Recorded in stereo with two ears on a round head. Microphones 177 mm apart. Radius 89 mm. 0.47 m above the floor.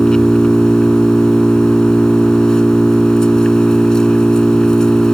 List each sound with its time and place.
0.0 s an engine running: 5° left (ahead or behind)